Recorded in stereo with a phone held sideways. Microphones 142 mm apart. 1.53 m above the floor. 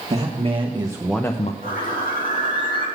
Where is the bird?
85° left, 5.5 m.